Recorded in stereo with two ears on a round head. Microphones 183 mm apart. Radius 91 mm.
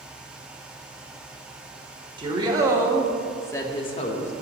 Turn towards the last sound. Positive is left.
turn(degrees=40)  # may be behind; listen again after turning